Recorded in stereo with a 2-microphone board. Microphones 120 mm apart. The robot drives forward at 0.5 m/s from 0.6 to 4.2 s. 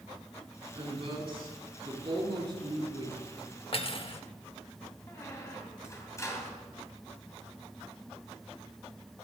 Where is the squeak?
25° left (ahead or behind), 2.5 m.